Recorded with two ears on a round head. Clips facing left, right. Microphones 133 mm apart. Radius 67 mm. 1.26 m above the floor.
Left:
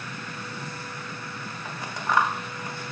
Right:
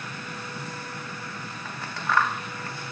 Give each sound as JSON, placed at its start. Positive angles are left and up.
{"t": 1.6, "sound": "scissors", "side_deg": 15, "distance_m": 0.7}